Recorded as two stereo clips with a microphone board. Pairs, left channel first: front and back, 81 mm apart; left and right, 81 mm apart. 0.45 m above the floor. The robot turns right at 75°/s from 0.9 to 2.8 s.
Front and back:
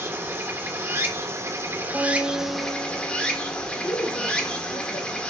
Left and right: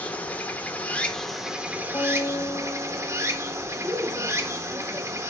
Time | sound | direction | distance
0.0 | running water | 145° left | 0.7 m
1.9 | a guitar | 115° left | 1.4 m
3.7 | a woman speaking | 20° right | 1.5 m